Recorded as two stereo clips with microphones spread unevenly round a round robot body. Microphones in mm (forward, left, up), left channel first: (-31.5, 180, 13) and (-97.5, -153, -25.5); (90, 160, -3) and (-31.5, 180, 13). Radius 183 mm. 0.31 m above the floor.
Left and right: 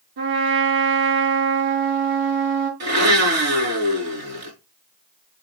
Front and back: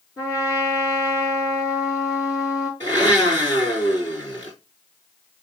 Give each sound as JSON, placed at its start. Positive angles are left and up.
{"t": 0.2, "sound": "a trumpet", "azimuth_deg": -95, "distance_m": 5.0}
{"t": 2.8, "sound": "a blender", "azimuth_deg": -90, "distance_m": 4.5}